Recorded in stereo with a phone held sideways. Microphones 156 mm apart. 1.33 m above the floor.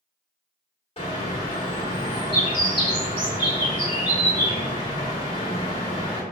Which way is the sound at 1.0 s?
40° left (ahead or behind).